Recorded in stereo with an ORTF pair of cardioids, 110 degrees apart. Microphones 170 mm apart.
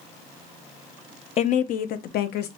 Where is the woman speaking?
40° left, 0.7 m; by 2.5 s 75° left, 1.1 m.